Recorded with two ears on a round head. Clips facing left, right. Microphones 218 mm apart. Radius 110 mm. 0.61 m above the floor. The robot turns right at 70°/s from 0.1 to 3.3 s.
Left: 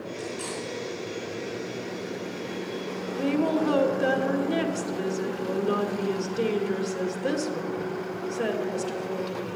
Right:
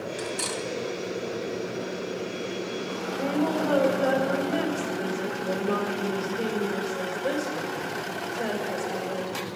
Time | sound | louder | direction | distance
0.2 | cutlery clinking | right 1 dB | 80° right | 2 m
3.1 | a woman speaking | left 2 dB | 50° left (ahead or behind) | 1.7 m